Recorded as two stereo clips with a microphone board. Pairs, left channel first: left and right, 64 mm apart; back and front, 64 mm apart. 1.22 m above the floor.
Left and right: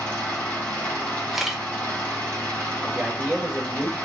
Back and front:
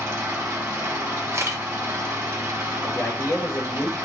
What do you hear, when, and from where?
0.0 s an engine running: 20° left, 1.3 m
1.3 s a camera shutter: 5° right, 0.6 m
2.8 s a man speaking: 155° right, 1.5 m